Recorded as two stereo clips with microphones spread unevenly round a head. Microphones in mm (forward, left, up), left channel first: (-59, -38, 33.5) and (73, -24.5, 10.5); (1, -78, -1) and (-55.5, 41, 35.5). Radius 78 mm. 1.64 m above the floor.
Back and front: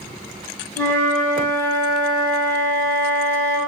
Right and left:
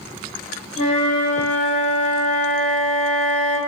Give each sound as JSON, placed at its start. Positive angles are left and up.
{"t": 0.8, "sound": "a flute", "azimuth_deg": -110, "distance_m": 0.8}